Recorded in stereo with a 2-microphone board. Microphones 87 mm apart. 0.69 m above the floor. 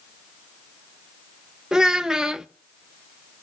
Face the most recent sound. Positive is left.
turn(degrees=-10)  # may be behind; listen again after turning